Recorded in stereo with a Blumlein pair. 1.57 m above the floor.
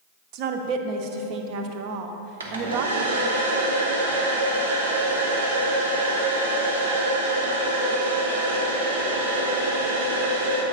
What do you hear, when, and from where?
0.3 s a woman speaking: 40° right, 0.8 m
2.4 s a hair dryer: 70° right, 1.1 m